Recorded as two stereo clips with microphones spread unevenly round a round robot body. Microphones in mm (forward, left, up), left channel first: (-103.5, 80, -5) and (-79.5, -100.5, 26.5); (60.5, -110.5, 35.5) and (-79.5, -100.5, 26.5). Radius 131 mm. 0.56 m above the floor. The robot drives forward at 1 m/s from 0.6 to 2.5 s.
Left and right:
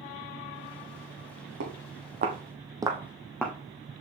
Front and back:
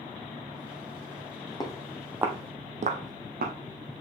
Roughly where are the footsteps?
Ahead right.